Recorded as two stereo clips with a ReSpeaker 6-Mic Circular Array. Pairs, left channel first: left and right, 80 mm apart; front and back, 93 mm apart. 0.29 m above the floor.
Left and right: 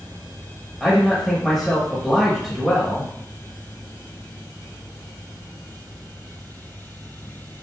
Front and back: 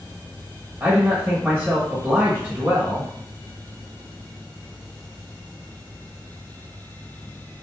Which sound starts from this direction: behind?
A man speaking, at 0.8 s.